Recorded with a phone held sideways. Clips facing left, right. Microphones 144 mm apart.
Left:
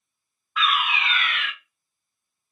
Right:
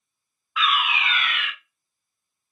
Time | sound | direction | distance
0.6 | a fire alarm | 5° right (ahead or behind) | 1.4 m